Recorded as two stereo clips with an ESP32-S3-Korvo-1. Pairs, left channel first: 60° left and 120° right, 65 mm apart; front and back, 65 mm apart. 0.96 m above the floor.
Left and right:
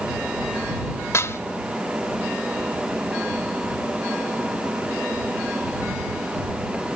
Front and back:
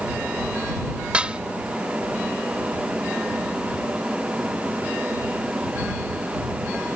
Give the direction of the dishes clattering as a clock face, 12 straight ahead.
8 o'clock.